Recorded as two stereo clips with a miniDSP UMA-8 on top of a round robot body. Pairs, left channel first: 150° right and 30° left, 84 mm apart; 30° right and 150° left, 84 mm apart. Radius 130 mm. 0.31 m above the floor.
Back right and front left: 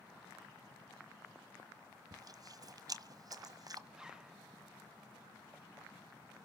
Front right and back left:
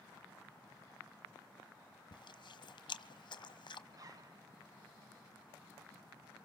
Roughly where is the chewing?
Ahead.